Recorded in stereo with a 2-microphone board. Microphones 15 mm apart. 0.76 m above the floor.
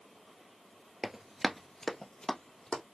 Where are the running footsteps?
40° right (ahead or behind), 0.9 m; by 2.8 s 65° left (ahead or behind), 1.8 m.